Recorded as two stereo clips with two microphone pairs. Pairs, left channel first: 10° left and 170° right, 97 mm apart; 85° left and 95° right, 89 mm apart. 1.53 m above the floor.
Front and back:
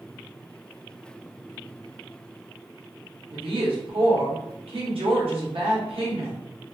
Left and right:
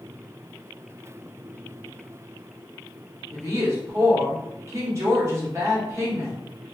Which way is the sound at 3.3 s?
155° right.